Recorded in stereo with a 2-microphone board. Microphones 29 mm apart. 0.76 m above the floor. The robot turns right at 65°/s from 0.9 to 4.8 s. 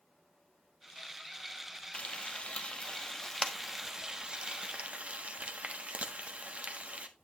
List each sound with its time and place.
1.9 s frying: 45° left (ahead or behind), 1.4 m; by 7.1 s 50° right (ahead or behind), 1.4 m